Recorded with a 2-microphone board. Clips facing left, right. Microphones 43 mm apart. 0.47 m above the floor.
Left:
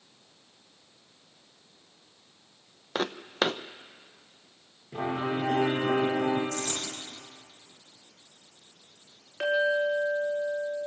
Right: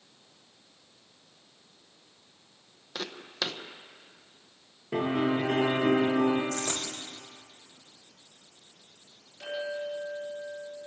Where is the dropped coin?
55° right (ahead or behind), 6.5 m.